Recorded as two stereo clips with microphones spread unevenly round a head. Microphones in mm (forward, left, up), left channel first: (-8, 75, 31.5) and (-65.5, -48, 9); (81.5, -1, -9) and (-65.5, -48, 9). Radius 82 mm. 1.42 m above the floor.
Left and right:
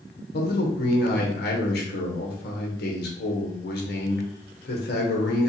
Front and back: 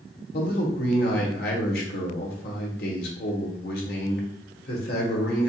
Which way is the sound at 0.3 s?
45° left.